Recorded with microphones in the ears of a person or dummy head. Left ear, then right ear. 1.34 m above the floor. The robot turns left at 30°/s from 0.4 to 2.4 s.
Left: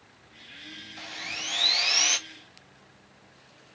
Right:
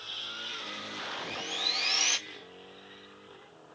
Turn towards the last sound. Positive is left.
turn(degrees=-5)